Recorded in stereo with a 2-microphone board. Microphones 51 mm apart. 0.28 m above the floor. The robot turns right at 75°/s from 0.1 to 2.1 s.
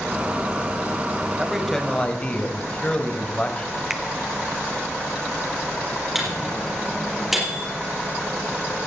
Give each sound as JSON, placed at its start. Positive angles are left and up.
{"t": 1.4, "sound": "a man speaking", "azimuth_deg": -10, "distance_m": 1.6}
{"t": 3.9, "sound": "a finger snap", "side_deg": -10, "distance_m": 1.0}
{"t": 6.2, "sound": "a microwave", "side_deg": -5, "distance_m": 5.5}